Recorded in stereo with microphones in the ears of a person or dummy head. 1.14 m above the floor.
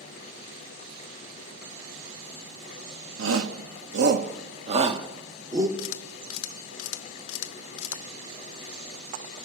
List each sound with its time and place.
3.2 s a shout: 85° right, 1.3 m; by 5.7 s 15° right (ahead or behind), 2 m
5.8 s a camera shutter: 80° left, 1.0 m